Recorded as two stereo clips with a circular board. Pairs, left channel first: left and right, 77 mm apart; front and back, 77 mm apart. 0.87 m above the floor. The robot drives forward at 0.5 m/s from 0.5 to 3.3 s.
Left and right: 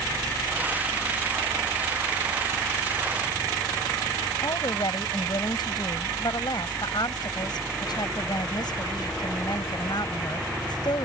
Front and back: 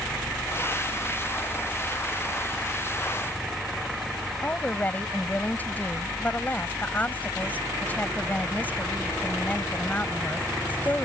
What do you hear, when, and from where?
4.4 s a woman speaking: 65° left